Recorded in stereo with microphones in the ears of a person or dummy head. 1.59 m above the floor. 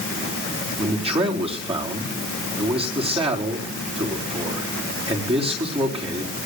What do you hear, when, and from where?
0.8 s a man speaking: 35° right (ahead or behind), 4 m